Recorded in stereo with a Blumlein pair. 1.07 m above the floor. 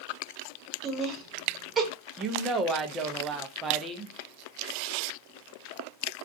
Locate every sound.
0.8 s laughter: 20° right, 1.0 m
2.2 s a woman speaking: 20° right, 0.6 m